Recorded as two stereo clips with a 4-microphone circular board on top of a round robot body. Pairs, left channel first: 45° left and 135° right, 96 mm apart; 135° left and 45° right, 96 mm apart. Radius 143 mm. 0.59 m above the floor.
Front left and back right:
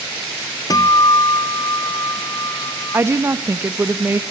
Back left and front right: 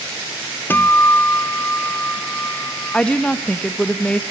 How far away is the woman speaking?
About 0.9 m.